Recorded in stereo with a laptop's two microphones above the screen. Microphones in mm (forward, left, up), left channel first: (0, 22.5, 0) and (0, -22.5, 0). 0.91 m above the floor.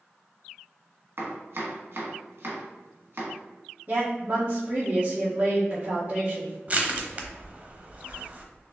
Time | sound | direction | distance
1.2 | chopping | 60° right (ahead or behind) | 1.4 m
3.9 | a woman speaking | 50° right (ahead or behind) | 1.7 m
6.7 | crushing | 35° right (ahead or behind) | 0.9 m